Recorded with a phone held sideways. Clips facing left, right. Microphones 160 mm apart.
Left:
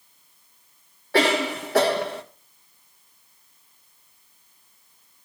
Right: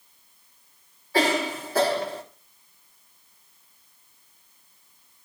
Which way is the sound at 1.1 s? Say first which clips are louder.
Left 2 dB; 75° left (ahead or behind).